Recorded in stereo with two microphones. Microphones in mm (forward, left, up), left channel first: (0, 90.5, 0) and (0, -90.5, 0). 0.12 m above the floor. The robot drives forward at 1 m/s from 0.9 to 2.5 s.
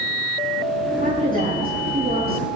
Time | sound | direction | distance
1.0 | a woman speaking | 45° right (ahead or behind) | 7.5 m